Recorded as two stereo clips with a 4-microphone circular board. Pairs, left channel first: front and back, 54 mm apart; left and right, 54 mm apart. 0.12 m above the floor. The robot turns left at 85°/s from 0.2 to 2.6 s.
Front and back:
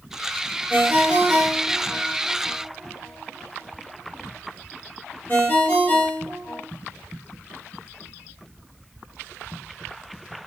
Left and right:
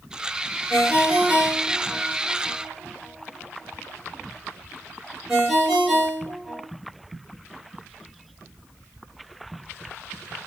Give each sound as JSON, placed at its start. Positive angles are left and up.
{"t": 0.7, "sound": "a ringtone", "azimuth_deg": 160, "distance_m": 1.4}